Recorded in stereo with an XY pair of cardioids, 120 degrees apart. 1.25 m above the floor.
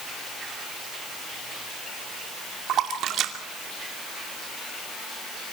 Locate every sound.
2.7 s a splash: 65° right, 2.5 m